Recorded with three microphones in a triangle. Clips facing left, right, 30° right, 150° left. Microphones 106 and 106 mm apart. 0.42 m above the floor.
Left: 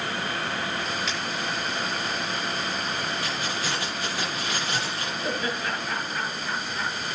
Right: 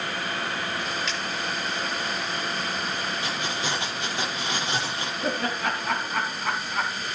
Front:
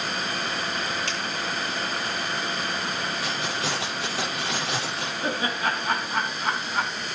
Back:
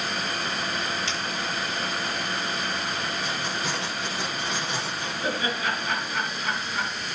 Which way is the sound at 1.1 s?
5° left.